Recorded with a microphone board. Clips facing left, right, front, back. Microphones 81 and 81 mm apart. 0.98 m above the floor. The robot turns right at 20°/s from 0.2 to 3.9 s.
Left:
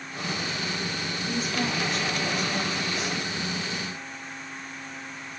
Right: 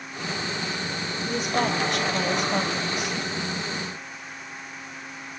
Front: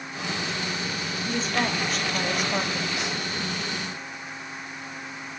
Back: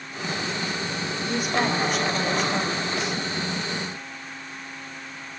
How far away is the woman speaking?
About 2.5 m.